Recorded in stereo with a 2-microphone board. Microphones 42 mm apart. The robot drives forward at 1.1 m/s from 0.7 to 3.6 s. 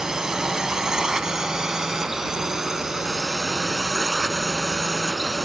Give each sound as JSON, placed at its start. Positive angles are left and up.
{"t": 0.0, "sound": "a drone", "side_deg": -15}